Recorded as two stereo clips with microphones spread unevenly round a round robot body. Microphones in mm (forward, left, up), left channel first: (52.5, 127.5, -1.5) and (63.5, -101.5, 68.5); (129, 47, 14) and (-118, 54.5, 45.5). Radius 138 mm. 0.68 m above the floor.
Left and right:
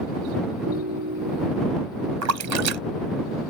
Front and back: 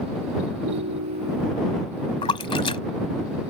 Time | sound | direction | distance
0.7 | a ringtone | 130° right | ?
2.2 | a splash | 75° right | ?